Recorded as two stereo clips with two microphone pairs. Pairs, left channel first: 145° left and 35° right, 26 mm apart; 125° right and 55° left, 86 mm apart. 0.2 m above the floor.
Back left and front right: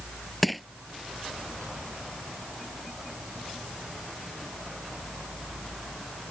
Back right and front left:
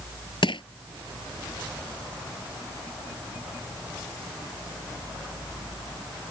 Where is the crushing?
125° right.